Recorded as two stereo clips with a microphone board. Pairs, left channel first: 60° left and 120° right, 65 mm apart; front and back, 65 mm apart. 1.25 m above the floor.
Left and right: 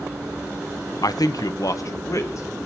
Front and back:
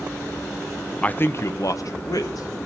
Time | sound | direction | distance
1.0 | a man speaking | 70° left | 0.7 m